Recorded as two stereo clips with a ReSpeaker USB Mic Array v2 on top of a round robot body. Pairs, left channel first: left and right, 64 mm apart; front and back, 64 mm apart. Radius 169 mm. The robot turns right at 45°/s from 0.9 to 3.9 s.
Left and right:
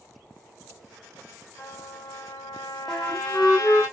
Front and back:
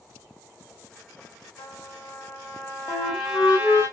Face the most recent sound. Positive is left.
turn(degrees=50)